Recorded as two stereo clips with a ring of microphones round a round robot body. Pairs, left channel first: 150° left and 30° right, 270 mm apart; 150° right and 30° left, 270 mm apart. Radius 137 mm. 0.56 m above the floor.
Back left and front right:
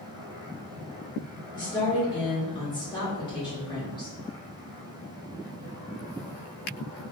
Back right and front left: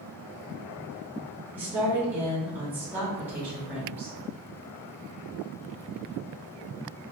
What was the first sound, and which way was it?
A woman speaking, 105° left.